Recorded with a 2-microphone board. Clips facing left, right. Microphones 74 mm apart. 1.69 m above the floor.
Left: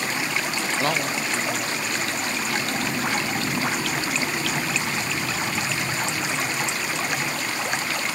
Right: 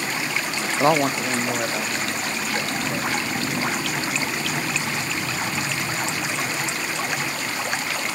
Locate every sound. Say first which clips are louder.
0.8 s a man speaking: right 8 dB; 15° right (ahead or behind), 0.5 m; by 3.8 s 75° right (ahead or behind), 5 m